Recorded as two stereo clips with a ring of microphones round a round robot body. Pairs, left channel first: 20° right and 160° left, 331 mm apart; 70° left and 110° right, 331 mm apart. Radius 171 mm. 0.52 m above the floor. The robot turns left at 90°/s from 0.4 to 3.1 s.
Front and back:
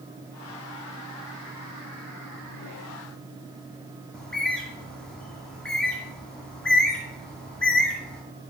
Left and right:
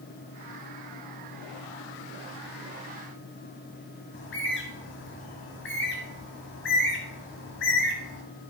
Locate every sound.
4.1 s a bird: 65° left, 1.4 m